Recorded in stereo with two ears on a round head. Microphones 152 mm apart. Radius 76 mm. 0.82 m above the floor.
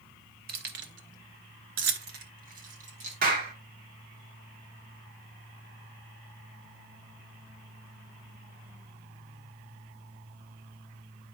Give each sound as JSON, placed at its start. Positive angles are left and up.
{"t": 0.5, "sound": "keys jangling", "side_deg": -60, "distance_m": 1.2}
{"t": 3.2, "sound": "a clap", "side_deg": -50, "distance_m": 1.6}